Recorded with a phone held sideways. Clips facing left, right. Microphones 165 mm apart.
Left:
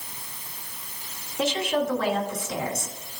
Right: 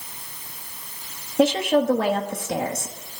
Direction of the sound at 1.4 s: 55° right (ahead or behind).